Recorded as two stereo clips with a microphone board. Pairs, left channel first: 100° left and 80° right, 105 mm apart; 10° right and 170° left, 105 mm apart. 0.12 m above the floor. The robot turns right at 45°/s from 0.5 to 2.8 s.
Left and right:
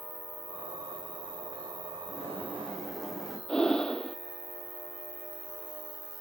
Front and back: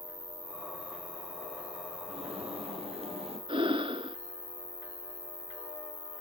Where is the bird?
155° left, 3 m; by 3.4 s 175° right, 3 m.